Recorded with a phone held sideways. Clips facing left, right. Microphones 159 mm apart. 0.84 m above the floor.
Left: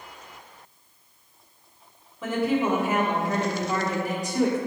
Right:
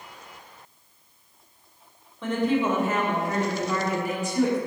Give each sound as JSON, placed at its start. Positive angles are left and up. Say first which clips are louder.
{"t": 2.2, "sound": "a woman speaking", "louder": "even", "side_deg": 5, "distance_m": 2.0}